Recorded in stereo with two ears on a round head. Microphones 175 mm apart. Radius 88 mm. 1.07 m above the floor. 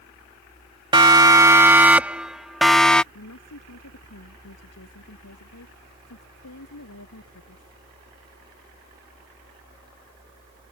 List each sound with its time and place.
0.9 s a siren: 20° right (ahead or behind); by 3.0 s 5° left (ahead or behind)
3.1 s a woman speaking: 90° left